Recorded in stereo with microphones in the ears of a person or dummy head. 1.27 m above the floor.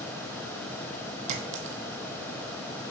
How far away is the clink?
About 1.2 m.